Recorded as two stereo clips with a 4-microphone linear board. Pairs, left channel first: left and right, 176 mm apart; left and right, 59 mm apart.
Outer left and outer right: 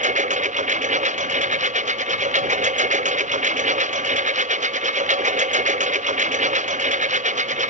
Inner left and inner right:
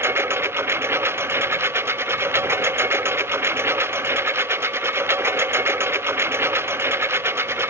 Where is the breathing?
No breathing in this recording.